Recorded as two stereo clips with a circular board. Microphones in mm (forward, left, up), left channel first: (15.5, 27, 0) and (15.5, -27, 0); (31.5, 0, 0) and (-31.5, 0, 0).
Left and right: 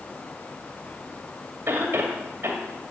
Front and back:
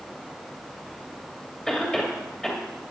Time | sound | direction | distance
1.7 | a cough | 75° right | 2 m